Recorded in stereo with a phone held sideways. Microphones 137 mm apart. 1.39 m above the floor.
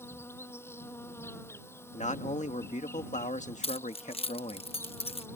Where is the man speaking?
60° left (ahead or behind).